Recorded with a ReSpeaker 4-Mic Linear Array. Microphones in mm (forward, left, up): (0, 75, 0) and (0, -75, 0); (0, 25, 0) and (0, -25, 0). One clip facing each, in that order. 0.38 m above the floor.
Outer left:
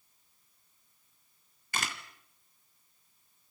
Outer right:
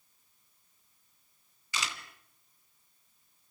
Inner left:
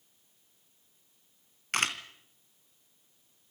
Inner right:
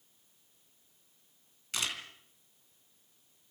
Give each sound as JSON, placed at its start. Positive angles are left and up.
{"t": 1.7, "sound": "a camera shutter", "side_deg": 55, "distance_m": 2.5}